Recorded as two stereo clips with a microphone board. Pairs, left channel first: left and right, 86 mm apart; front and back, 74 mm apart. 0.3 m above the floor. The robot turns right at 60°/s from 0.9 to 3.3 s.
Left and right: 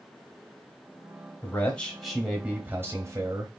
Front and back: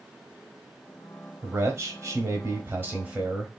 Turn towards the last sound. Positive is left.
turn(degrees=-110)